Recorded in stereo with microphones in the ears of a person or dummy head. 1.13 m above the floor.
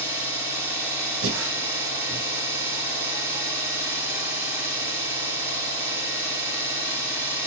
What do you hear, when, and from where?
0.0 s an engine running: 5° right (ahead or behind), 1.5 m
1.2 s breathing: 75° right (ahead or behind), 0.6 m